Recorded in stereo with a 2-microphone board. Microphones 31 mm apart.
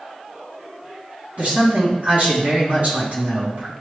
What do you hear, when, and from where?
1.4 s a man speaking: 55° right (ahead or behind), 3 m